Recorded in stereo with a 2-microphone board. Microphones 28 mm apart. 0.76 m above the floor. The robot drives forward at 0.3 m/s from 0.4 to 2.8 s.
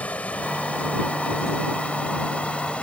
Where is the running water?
65° left (ahead or behind); by 2.8 s 55° left (ahead or behind).